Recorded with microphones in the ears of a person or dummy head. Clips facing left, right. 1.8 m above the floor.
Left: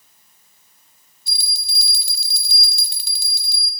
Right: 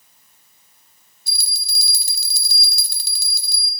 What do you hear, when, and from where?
1.3 s a bell: 35° right (ahead or behind), 0.8 m